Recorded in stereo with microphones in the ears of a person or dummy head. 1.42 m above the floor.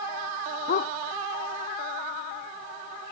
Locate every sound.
0.7 s a dog barking: 50° left (ahead or behind)